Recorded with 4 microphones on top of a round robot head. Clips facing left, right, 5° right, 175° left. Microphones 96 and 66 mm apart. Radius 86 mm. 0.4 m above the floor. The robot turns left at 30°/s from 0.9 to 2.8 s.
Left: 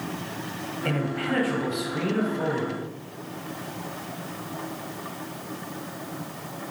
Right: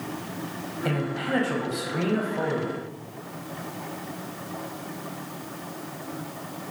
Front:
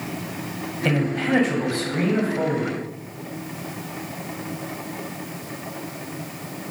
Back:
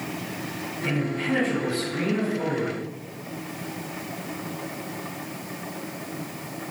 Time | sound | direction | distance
0.8 | a man speaking | 10° right | 3 m